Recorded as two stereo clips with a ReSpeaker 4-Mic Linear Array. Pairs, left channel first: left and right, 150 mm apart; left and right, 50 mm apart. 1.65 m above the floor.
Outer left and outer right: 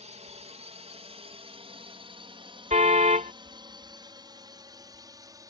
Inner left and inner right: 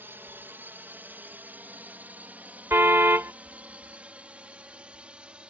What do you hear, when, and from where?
0.0 s a drone: 50° right (ahead or behind); by 5.5 s 25° right (ahead or behind)
2.7 s a car horn: 55° right (ahead or behind)